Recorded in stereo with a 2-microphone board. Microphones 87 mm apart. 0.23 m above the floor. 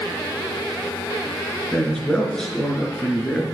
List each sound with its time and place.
1.7 s a man speaking: 5° left (ahead or behind), 3.5 m